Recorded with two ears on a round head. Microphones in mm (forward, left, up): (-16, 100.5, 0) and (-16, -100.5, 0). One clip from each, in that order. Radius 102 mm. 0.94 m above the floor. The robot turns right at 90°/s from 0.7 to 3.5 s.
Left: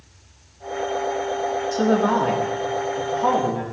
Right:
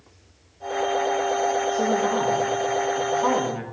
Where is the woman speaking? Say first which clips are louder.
Left 2 dB; 70° left, 2.5 m; by 3.6 s 130° right, 2.5 m.